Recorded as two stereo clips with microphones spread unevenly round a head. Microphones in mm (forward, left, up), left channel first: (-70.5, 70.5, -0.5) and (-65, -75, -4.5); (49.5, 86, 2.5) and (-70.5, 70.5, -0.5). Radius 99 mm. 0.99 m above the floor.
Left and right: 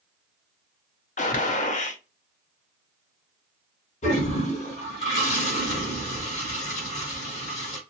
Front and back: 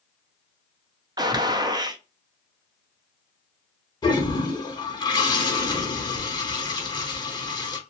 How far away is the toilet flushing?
About 1.0 m.